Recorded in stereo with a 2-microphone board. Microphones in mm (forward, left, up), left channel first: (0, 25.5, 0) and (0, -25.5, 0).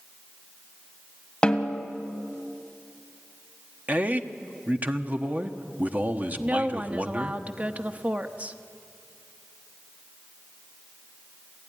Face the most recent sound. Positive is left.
turn(degrees=-30)  # may be behind; listen again after turning